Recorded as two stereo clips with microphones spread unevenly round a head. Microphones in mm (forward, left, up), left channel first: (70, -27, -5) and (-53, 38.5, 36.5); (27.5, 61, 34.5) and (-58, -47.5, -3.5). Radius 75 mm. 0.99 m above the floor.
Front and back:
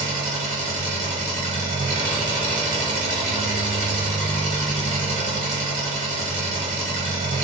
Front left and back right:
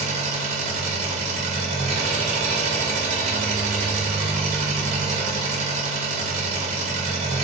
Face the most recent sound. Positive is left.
turn(degrees=-165)